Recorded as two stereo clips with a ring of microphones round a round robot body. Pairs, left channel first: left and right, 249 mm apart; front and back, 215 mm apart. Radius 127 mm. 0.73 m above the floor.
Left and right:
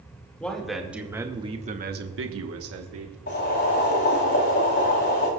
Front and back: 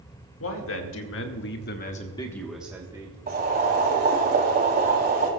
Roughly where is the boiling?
Behind left.